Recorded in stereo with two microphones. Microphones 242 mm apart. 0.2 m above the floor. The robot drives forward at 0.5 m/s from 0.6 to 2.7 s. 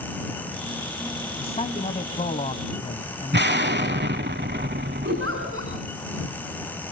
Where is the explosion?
45° right (ahead or behind), 0.7 m.